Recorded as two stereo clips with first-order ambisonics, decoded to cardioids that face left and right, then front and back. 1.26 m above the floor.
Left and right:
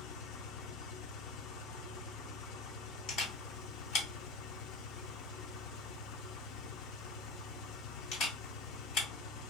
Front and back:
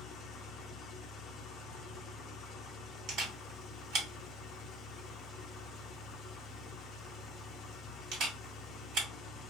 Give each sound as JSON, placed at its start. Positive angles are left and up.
{"t": 0.0, "sound": "an engine running", "azimuth_deg": 60, "distance_m": 0.7}
{"t": 3.1, "sound": "a camera shutter", "azimuth_deg": 135, "distance_m": 1.9}